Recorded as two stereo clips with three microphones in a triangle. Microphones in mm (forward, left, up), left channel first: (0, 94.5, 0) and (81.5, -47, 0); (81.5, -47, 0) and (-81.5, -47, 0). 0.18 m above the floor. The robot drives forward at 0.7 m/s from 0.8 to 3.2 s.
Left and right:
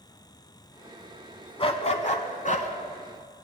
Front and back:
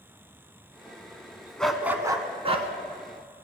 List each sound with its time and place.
1.6 s a dog barking: 80° left, 0.7 m; by 2.7 s 145° left, 1.0 m